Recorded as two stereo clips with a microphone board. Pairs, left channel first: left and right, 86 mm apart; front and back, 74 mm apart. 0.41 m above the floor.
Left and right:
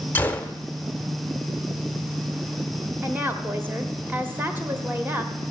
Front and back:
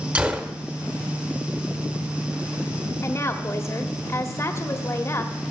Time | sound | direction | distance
0.1 | a gunshot | 130° left | 0.8 m
3.0 | a woman speaking | 30° right | 1.3 m